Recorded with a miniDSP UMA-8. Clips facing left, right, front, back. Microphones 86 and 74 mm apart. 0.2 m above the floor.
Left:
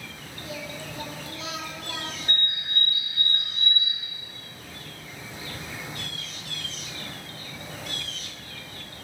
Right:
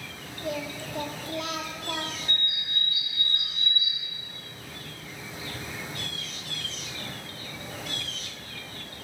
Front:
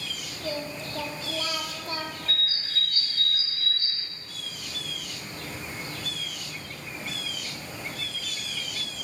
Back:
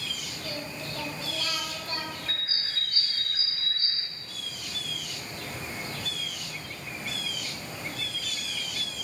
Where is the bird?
115° left, 0.8 m.